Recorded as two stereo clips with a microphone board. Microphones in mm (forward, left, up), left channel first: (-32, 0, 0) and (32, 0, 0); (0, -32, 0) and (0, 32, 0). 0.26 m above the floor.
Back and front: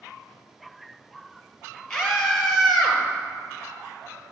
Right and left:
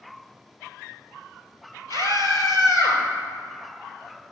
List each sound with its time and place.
1.9 s a scream: 100° right, 4.5 m; by 3.0 s 85° right, 4.5 m